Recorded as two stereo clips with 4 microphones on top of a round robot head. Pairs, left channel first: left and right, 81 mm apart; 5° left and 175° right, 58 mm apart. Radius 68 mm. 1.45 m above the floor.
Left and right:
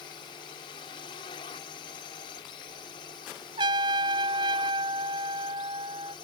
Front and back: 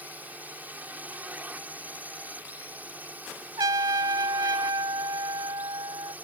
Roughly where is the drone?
Behind left.